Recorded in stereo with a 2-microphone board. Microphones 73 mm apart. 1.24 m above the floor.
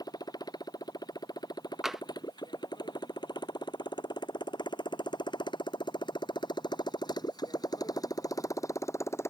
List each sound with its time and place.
0.0 s a motorcycle: 60° left (ahead or behind); by 9.3 s 35° left (ahead or behind)
1.8 s tapping: 5° right (ahead or behind)